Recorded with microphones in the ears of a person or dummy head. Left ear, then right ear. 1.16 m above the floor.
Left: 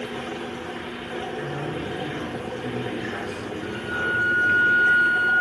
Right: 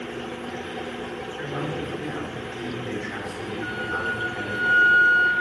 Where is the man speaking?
35° right (ahead or behind), 4.5 m.